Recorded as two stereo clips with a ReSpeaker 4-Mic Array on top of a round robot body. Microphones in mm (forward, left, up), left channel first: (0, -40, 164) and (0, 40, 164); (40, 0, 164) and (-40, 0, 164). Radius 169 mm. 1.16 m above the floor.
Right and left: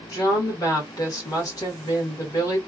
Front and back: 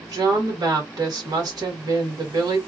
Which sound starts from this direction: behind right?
A woman speaking, at 0.1 s.